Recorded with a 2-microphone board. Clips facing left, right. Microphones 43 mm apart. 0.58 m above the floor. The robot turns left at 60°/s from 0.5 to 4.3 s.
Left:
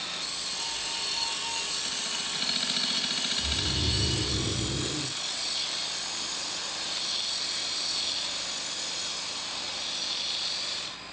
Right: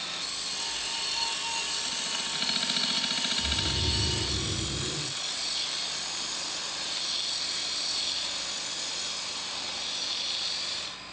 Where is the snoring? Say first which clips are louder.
Even; 175° right, 2 m; by 5.2 s 130° left, 2 m.